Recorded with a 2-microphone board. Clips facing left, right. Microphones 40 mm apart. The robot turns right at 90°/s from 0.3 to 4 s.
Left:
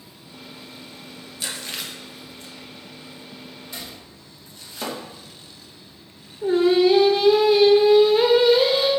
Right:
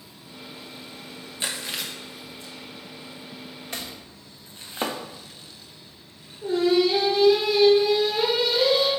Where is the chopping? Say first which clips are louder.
Right 4 dB; 60° right (ahead or behind), 0.8 m; by 5.0 s 35° right (ahead or behind), 0.8 m.